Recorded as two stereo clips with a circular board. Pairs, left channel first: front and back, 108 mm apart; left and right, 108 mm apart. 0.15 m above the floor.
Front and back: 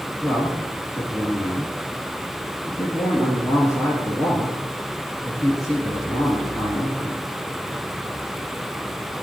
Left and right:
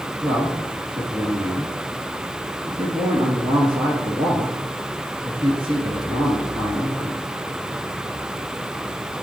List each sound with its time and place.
0.2 s a man speaking: 60° right, 3 m